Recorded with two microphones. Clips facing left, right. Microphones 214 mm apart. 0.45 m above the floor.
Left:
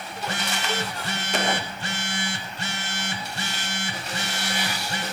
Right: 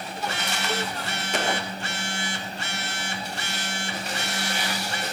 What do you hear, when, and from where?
0.1 s a phone buzzing: 35° left (ahead or behind), 6.5 m